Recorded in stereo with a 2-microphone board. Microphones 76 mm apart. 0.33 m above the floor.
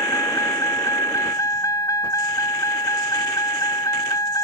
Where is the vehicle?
45° left (ahead or behind); by 4.4 s 50° left (ahead or behind).